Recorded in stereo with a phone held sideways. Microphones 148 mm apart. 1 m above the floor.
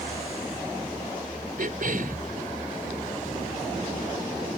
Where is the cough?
70° right (ahead or behind).